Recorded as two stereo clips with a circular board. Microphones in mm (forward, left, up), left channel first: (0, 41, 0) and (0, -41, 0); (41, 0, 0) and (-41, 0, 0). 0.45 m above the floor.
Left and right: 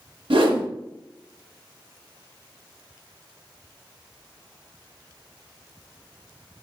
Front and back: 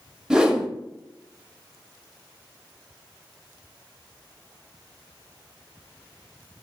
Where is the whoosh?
100° right, 0.5 m.